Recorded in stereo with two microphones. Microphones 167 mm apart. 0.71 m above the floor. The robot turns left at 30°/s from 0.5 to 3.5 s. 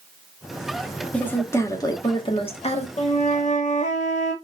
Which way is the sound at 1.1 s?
170° left.